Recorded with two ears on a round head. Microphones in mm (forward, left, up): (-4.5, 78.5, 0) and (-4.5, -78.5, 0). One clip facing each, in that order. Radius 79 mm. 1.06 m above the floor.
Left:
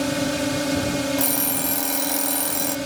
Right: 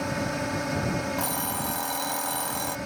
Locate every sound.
0.0 s a drone: 40° left (ahead or behind)
1.2 s an alarm clock: 25° left (ahead or behind)